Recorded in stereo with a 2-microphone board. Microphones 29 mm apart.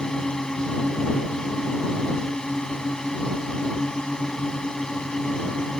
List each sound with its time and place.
0.0 s a drone: 25° left (ahead or behind)